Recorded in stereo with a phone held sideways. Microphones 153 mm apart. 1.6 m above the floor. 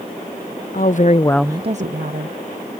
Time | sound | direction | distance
0.7 | a woman speaking | 65° left (ahead or behind) | ?